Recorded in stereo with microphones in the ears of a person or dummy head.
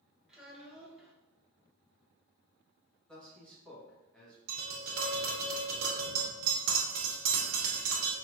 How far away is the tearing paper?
No tearing paper in this recording.